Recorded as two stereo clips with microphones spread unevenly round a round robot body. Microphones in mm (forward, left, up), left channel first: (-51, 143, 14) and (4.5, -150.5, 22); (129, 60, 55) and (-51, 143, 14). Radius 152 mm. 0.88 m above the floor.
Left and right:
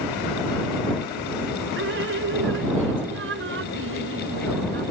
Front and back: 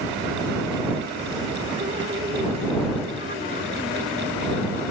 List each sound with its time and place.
1.8 s dripping: 130° right